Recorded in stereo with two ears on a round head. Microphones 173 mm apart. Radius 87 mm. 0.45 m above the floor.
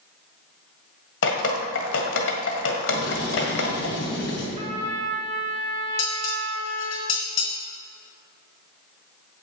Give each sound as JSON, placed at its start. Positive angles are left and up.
{"t": 1.2, "sound": "dripping", "side_deg": 70, "distance_m": 1.8}
{"t": 2.9, "sound": "writing", "side_deg": 65, "distance_m": 3.5}
{"t": 4.6, "sound": "a trumpet", "side_deg": -35, "distance_m": 2.0}
{"t": 6.0, "sound": "dishes clattering", "side_deg": 75, "distance_m": 3.0}